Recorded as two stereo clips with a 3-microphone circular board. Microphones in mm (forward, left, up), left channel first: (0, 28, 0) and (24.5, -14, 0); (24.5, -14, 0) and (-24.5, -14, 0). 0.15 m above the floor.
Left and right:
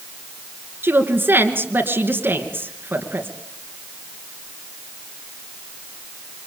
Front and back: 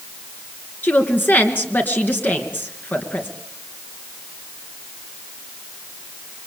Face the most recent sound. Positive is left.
turn(degrees=-35)